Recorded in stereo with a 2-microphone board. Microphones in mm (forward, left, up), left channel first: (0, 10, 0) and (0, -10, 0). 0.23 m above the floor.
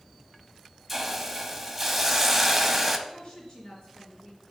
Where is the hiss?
10° right (ahead or behind), 0.8 m.